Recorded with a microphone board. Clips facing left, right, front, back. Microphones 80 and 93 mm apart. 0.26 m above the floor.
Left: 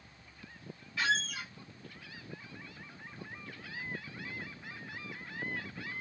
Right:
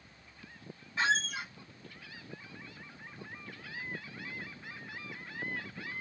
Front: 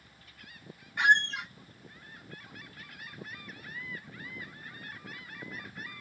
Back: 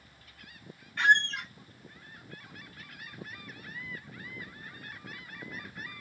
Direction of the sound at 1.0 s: 60° right.